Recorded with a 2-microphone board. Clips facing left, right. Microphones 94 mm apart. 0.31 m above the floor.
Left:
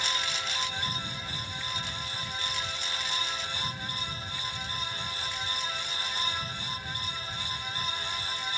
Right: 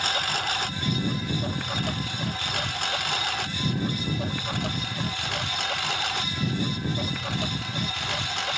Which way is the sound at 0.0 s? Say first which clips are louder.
Right 6 dB; 60° right (ahead or behind).